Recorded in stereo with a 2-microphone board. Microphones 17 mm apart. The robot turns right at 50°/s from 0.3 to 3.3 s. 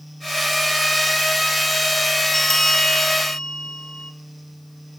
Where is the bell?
15° left, 1.4 m; by 4.1 s 65° left, 1.4 m.